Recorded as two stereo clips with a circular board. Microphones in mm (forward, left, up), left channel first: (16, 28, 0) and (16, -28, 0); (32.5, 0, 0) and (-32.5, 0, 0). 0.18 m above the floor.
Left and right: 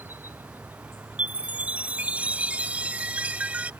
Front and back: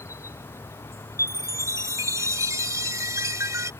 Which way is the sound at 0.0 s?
40° right.